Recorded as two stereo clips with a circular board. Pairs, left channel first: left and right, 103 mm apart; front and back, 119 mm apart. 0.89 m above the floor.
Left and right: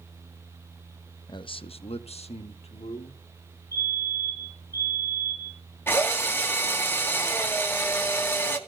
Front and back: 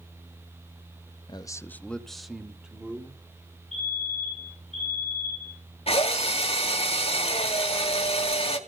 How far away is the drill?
About 2 m.